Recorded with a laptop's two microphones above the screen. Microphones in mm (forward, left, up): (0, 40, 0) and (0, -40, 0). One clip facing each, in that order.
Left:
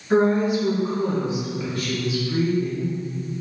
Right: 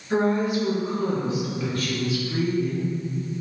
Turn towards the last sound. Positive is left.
turn(degrees=-5)  # may be behind; listen again after turning